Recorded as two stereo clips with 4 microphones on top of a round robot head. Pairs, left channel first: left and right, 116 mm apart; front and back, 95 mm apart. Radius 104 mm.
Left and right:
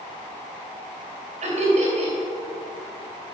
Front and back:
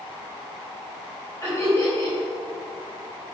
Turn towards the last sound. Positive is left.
turn(degrees=-65)